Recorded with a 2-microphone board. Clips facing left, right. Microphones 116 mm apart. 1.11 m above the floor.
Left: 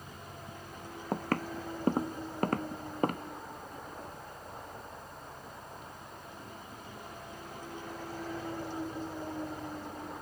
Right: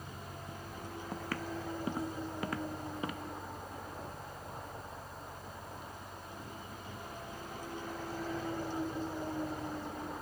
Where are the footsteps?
50° left (ahead or behind).